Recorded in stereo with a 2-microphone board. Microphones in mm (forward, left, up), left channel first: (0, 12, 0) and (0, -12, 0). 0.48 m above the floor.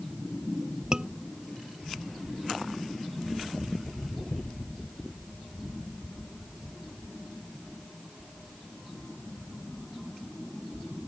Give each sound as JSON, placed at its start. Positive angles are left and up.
{"t": 0.9, "sound": "a scream", "side_deg": -30}